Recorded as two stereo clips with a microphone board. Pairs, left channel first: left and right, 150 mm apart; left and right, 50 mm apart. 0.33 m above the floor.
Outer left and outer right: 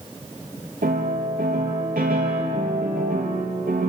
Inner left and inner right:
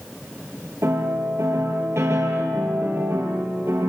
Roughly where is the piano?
Right.